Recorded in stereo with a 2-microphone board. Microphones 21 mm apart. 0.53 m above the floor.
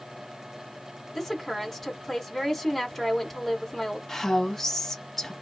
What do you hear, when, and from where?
1.1 s a woman speaking: 10° left (ahead or behind), 1.8 m
4.1 s a woman speaking: 15° left (ahead or behind), 0.9 m